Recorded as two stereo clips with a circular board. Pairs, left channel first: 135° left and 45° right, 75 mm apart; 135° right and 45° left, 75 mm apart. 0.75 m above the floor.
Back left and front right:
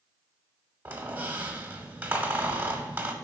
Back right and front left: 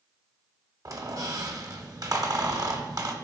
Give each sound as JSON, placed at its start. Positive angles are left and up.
{"t": 0.8, "sound": "a squeak", "azimuth_deg": 20, "distance_m": 0.9}